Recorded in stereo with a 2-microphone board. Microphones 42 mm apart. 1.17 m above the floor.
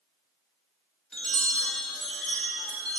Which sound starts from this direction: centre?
A chime, at 1.1 s.